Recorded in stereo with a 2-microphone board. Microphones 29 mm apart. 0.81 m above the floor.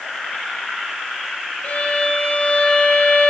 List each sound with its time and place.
1.6 s a violin: 45° left (ahead or behind), 0.9 m